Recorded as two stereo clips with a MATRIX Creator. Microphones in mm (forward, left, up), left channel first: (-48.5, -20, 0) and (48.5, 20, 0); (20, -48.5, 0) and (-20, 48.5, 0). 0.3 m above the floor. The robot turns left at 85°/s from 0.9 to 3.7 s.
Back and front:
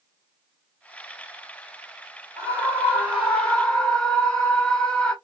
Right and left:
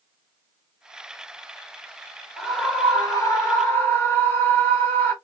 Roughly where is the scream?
Ahead.